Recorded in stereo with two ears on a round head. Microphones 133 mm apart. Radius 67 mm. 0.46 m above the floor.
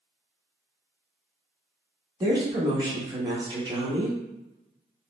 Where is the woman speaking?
25° right (ahead or behind), 0.9 m.